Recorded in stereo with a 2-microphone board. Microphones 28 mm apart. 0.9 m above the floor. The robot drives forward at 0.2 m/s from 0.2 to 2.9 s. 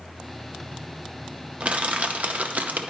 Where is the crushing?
50° right (ahead or behind), 0.6 m; by 2.9 s 65° right (ahead or behind), 0.5 m.